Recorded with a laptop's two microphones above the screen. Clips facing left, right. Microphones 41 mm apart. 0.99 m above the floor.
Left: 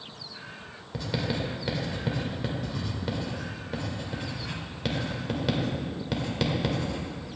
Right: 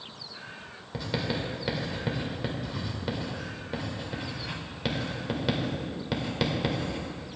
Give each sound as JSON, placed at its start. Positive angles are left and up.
{"t": 0.9, "sound": "writing", "side_deg": -5, "distance_m": 1.8}